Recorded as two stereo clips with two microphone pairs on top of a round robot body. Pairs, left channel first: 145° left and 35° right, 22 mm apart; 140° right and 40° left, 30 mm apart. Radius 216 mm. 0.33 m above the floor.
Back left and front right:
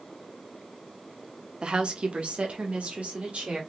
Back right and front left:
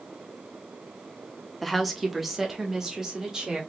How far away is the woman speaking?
About 1.2 m.